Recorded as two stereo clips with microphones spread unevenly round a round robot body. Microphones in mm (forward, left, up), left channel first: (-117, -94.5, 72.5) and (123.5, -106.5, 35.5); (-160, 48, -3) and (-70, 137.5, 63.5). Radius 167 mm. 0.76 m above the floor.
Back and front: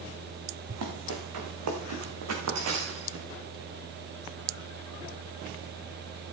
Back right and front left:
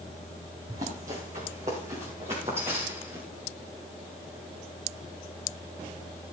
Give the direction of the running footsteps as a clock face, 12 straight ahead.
12 o'clock.